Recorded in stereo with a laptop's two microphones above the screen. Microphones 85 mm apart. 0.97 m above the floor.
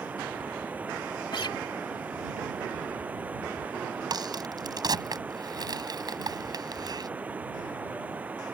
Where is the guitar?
75° left (ahead or behind).